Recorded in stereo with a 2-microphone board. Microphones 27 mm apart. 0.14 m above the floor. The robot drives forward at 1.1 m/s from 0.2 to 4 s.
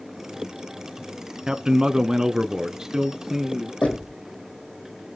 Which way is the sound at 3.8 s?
75° left (ahead or behind).